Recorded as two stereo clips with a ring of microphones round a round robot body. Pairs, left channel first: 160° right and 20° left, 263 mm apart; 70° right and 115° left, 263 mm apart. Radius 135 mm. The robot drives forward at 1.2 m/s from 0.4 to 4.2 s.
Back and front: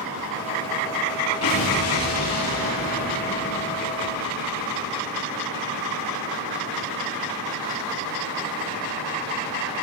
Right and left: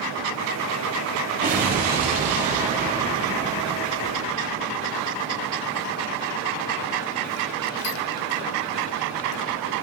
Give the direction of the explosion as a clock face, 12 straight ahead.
6 o'clock.